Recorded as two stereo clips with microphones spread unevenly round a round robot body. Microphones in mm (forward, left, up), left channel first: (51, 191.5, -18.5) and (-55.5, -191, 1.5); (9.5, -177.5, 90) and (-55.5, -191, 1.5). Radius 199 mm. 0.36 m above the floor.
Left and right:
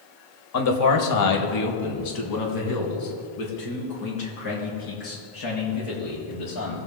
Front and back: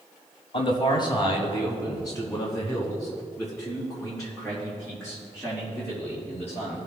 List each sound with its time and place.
0.5 s a man speaking: 95° left, 1.3 m; by 6.8 s 115° left, 7 m